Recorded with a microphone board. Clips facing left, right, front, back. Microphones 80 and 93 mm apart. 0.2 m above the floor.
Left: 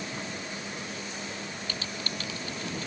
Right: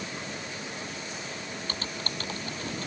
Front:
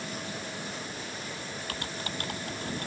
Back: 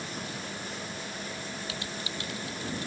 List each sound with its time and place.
1.7 s typing on a keyboard: 40° right